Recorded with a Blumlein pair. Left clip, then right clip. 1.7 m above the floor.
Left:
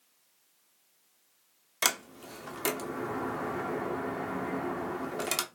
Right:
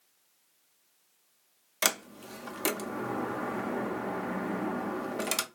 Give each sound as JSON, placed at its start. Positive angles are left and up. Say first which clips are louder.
{"t": 1.8, "sound": "a sliding door", "louder": "even", "azimuth_deg": -5, "distance_m": 0.6}